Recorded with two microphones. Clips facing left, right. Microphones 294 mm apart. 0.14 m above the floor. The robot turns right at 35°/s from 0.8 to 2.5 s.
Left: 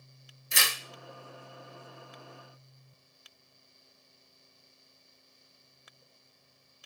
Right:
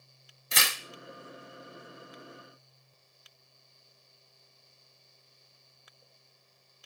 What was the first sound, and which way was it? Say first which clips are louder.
Tearing paper: right 1 dB; 75° right (ahead or behind).